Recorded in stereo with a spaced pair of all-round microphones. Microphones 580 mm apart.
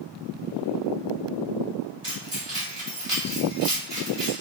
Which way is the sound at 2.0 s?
65° right (ahead or behind).